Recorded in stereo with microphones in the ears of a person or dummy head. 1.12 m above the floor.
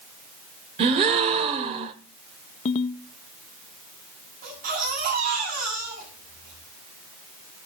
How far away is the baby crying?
About 7 m.